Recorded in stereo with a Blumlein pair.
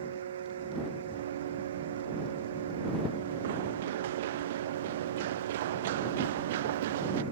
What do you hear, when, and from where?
0.0 s a fan: 65° right
1.1 s running footsteps: 55° right